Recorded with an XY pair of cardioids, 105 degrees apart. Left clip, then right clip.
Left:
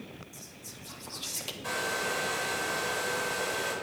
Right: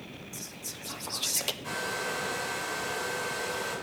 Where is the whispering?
45° right, 0.9 m.